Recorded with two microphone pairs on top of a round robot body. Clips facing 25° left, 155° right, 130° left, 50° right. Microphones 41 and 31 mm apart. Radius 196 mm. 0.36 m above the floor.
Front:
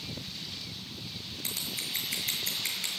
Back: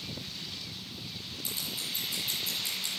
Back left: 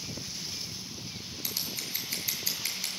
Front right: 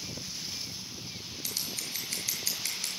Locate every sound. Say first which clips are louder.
1.4 s scissors: front 1 dB, back left 1 dB; 45° left, 6.5 m